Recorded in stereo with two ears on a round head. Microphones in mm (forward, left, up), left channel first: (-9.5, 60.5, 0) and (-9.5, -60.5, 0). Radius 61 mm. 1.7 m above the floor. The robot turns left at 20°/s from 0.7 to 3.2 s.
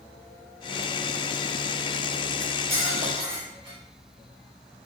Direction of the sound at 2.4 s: 10° right (ahead or behind).